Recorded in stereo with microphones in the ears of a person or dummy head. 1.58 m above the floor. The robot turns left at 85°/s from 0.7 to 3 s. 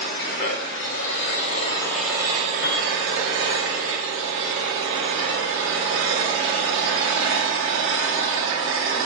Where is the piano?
60° left (ahead or behind), 0.7 m; by 2.9 s 45° left (ahead or behind), 0.7 m.